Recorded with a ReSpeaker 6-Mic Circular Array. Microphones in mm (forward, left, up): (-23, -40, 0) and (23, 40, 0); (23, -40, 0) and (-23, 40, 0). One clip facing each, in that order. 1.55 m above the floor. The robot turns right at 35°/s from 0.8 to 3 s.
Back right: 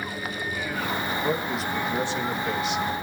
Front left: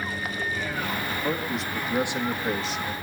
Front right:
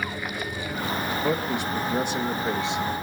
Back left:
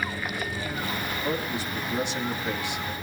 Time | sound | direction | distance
1.1 | a man speaking | 50° right | 2.5 m